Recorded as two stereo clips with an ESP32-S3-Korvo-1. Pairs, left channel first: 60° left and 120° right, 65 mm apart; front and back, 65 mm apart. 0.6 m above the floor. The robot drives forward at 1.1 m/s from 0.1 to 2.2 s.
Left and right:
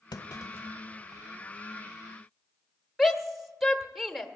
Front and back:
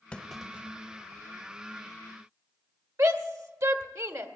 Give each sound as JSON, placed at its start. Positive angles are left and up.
{"t": 0.1, "sound": "a clunk", "azimuth_deg": 70, "distance_m": 0.8}
{"t": 3.0, "sound": "a shout", "azimuth_deg": 150, "distance_m": 1.4}